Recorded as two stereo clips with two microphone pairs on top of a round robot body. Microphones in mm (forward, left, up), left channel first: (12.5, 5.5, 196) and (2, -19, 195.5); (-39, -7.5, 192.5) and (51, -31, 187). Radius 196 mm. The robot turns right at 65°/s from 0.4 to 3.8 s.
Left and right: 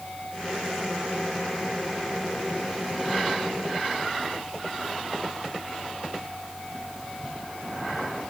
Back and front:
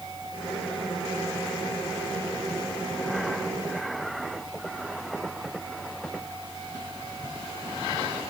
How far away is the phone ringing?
I don't hear a phone ringing.